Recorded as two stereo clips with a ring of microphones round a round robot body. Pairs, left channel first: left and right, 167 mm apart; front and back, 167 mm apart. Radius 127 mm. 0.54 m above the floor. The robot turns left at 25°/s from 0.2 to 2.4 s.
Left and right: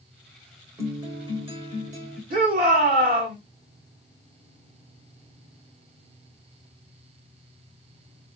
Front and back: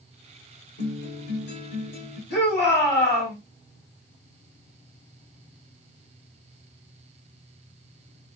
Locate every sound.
0.8 s a guitar: 15° right, 1.5 m; by 2.2 s 50° right, 1.5 m
2.3 s a shout: 60° right, 2 m; by 3.4 s 65° right, 2 m